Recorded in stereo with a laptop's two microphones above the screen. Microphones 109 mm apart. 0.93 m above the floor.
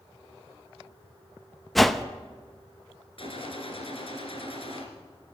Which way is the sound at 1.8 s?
Centre (ahead or behind).